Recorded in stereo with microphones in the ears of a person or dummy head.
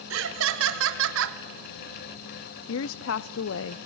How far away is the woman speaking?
About 0.6 m.